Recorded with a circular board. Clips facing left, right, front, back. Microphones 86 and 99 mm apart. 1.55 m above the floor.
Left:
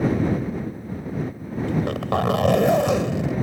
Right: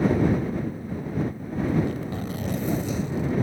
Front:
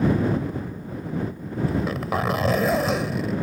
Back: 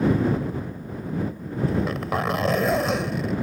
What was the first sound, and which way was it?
A zipper, 90° left.